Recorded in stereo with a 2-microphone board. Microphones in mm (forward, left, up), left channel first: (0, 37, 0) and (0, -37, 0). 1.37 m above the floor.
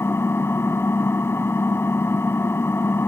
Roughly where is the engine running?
Left.